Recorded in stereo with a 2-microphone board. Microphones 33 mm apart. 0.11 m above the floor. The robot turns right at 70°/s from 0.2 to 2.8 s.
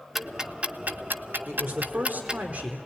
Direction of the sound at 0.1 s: 10° right (ahead or behind).